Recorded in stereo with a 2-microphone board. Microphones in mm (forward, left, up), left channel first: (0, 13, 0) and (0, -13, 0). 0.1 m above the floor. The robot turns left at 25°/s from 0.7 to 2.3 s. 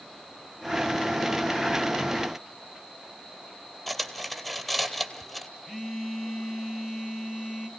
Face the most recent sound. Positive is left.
turn(degrees=10)  # may be behind; listen again after turning